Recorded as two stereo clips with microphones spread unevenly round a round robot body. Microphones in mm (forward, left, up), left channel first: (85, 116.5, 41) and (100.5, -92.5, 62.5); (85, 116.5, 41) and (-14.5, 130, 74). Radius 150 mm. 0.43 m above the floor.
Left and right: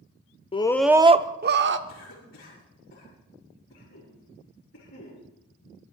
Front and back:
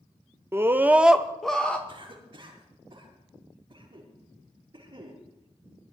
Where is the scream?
95° left, 0.9 m; by 1.8 s 75° right, 1.3 m.